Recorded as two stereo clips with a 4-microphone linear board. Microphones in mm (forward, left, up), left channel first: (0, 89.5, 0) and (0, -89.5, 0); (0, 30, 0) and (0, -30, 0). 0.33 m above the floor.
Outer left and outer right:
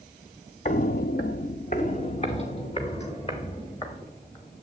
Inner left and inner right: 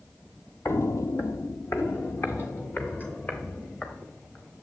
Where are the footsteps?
45° left (ahead or behind), 0.5 m; by 4.5 s 30° left (ahead or behind), 3.5 m.